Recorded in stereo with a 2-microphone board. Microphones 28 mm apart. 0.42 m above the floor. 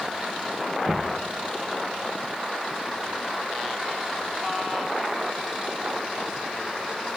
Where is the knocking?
50° right (ahead or behind), 5 m.